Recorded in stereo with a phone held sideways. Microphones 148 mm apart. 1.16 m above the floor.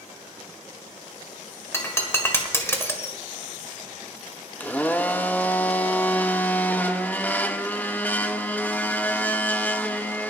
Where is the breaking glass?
20° left (ahead or behind), 1.6 m.